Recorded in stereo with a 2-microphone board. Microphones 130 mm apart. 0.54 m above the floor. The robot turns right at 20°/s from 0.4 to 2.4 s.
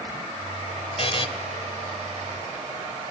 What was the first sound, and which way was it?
A buzzer, 50° left (ahead or behind).